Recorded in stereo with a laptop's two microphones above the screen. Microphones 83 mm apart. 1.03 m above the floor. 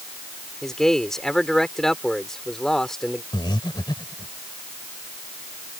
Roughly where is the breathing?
Left.